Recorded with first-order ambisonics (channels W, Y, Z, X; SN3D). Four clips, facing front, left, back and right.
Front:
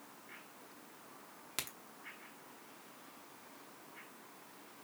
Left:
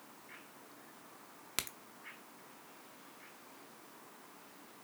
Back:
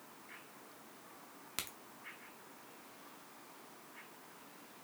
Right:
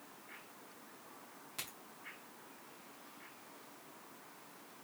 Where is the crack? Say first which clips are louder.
Left 6 dB, front 1 dB; 85° left, 0.8 m.